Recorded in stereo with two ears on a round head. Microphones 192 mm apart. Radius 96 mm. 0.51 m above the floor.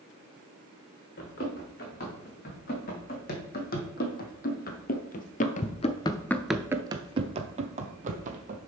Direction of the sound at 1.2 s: 45° left (ahead or behind).